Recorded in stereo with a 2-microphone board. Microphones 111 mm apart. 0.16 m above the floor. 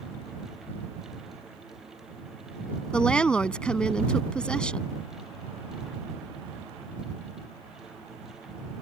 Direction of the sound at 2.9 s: 10° left (ahead or behind).